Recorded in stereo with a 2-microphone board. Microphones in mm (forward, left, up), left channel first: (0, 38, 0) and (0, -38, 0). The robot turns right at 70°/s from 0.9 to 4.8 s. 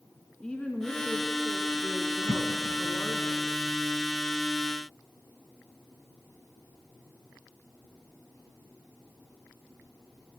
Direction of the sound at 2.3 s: 40° right (ahead or behind).